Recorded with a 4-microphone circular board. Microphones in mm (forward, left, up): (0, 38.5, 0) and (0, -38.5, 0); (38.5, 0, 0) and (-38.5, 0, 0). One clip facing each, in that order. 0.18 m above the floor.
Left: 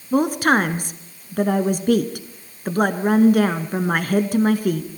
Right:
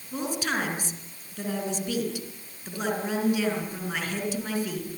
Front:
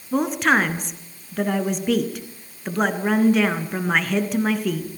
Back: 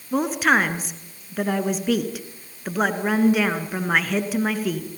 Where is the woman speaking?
95° left, 2.5 m.